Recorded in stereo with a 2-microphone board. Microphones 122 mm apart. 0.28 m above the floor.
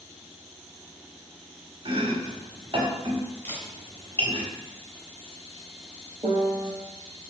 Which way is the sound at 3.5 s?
15° left (ahead or behind).